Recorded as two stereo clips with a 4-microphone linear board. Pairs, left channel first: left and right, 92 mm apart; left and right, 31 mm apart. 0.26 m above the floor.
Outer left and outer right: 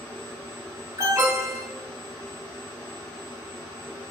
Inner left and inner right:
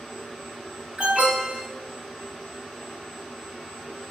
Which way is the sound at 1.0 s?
40° right (ahead or behind).